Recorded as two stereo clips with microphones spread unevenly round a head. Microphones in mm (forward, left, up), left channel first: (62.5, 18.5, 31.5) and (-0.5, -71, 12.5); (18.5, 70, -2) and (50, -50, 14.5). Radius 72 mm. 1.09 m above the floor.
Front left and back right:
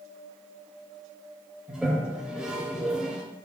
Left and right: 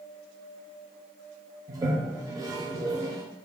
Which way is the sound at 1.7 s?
35° right.